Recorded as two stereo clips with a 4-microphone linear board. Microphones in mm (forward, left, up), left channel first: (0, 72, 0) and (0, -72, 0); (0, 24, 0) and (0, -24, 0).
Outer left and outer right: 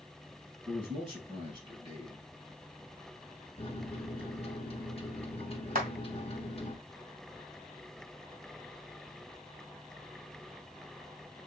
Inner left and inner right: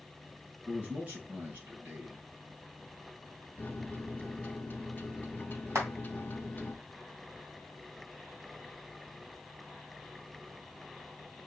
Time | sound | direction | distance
0.7 | a man speaking | 35° right (ahead or behind) | 4 m
3.6 | a microwave | 40° left (ahead or behind) | 0.6 m
5.8 | a clap | 75° right (ahead or behind) | 2 m